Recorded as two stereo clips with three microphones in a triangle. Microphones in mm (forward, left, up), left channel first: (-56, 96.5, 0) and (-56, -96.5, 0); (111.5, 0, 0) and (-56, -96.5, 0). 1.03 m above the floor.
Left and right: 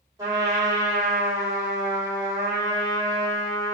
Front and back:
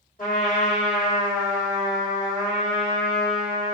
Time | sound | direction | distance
0.2 | a trumpet | 20° right | 1.6 m